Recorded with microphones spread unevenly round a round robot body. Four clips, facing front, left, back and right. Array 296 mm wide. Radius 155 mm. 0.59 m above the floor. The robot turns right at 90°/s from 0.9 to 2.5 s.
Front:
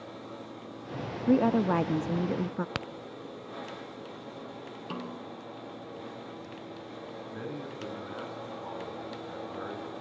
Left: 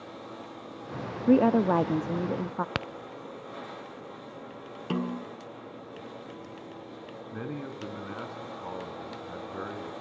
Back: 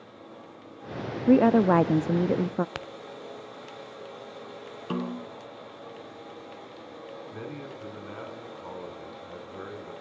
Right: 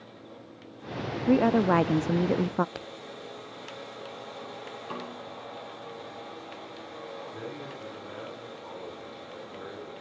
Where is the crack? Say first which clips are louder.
Left 6 dB, front 1 dB; 75° left, 0.8 m.